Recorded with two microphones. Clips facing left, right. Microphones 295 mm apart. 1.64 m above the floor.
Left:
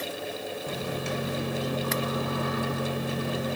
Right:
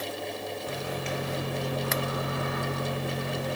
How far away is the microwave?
About 1.1 m.